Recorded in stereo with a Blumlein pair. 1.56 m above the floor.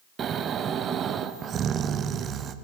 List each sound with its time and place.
0.2 s snoring: 25° right, 0.8 m